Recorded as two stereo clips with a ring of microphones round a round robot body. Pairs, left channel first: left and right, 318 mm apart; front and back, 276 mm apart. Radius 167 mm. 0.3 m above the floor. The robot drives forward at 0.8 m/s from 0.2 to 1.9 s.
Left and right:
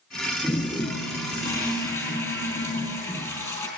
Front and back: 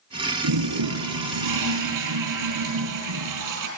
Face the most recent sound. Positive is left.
turn(degrees=170)